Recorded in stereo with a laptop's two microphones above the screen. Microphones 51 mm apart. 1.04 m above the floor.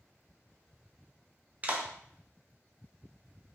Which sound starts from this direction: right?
A clap, at 1.6 s.